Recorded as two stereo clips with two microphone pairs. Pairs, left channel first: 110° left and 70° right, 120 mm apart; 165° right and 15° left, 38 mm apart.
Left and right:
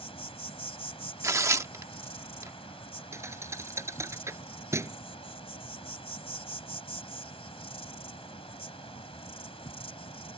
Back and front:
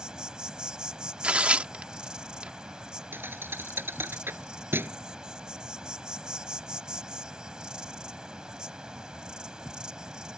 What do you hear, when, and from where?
0.0 s an insect: 80° left
1.2 s tearing paper: 20° right
3.1 s a thud: 5° right